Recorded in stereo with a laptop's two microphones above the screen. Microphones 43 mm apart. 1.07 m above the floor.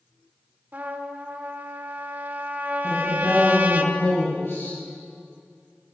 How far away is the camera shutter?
I don't hear a camera shutter.